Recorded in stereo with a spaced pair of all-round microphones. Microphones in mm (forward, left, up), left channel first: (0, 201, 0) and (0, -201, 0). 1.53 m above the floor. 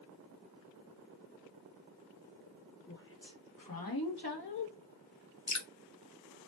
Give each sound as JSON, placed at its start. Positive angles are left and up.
{"t": 2.9, "sound": "a woman speaking", "side_deg": 25, "distance_m": 0.7}
{"t": 5.5, "sound": "dripping", "side_deg": 45, "distance_m": 0.5}